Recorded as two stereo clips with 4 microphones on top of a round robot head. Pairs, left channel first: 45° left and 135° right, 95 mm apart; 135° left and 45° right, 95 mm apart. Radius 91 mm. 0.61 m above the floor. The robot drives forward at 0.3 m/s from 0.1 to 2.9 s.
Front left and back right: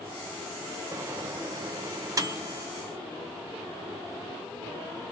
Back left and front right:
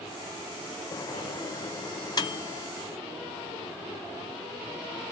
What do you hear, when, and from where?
0.9 s a microwave: 175° left, 0.6 m